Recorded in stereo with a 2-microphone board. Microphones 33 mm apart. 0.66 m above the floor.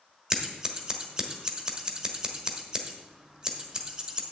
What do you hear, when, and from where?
0.3 s scissors: 25° right (ahead or behind), 1.3 m